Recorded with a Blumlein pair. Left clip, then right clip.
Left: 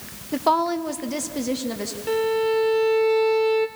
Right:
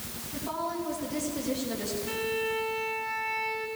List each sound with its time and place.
0.3 s a woman speaking: 45° left, 1.0 m; by 2.0 s 70° left, 2.5 m
2.1 s a violin: 65° left, 1.6 m